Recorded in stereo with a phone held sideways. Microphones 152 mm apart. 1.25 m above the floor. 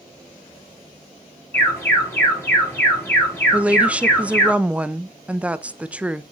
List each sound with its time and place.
1.5 s an alarm: 15° left (ahead or behind), 5 m
3.5 s a woman speaking: 10° right (ahead or behind), 0.6 m